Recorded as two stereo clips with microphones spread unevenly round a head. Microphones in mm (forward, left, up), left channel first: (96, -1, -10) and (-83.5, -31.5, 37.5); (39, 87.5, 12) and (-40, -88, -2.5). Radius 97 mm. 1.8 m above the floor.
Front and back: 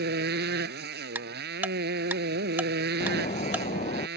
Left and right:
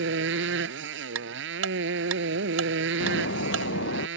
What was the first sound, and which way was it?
A motorcycle, 145° right.